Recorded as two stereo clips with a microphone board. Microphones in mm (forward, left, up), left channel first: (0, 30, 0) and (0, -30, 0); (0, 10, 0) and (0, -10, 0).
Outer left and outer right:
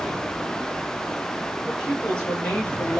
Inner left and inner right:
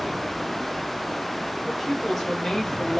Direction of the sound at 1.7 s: 10° left (ahead or behind).